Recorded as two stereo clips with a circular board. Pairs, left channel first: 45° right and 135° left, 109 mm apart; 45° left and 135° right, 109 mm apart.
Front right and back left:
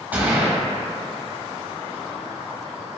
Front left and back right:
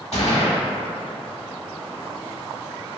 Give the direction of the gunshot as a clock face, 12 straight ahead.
10 o'clock.